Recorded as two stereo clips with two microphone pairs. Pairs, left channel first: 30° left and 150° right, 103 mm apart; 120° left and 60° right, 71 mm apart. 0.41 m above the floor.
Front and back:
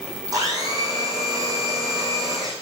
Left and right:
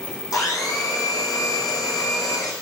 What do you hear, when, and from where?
0.3 s a blender: 155° left, 3.5 m